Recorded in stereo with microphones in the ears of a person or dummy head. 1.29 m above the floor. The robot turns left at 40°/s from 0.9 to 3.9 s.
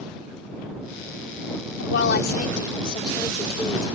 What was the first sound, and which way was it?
A woman speaking, 75° left.